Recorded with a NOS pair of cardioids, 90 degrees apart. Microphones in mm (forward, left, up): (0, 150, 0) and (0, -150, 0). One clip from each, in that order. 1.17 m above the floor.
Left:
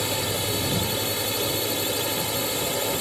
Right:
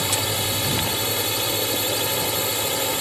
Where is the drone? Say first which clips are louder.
Right 3 dB; 35° right.